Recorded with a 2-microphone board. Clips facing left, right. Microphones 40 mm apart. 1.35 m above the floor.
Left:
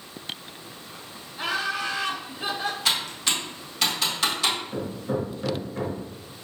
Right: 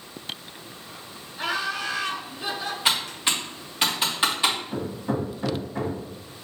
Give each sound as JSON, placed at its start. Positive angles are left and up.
{"t": 1.4, "sound": "laughter", "side_deg": 10, "distance_m": 1.9}
{"t": 2.9, "sound": "typing on a keyboard", "side_deg": -25, "distance_m": 1.1}
{"t": 4.7, "sound": "hammering", "side_deg": -55, "distance_m": 1.4}